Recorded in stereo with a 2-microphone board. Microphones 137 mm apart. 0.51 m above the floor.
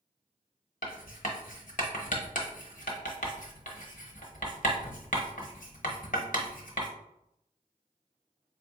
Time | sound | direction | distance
0.8 | writing | 70° left (ahead or behind) | 0.9 m